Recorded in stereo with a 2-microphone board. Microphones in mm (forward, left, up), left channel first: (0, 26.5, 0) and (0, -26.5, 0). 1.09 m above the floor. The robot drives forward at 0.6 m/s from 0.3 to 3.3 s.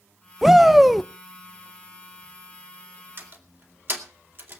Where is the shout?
10° right (ahead or behind), 0.5 m; by 1.1 s 5° right (ahead or behind), 0.9 m.